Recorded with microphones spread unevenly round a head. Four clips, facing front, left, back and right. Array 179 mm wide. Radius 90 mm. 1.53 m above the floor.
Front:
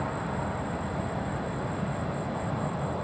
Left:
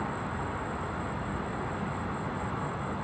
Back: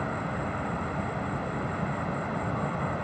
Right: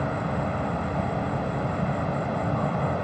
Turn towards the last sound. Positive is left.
turn(degrees=-90)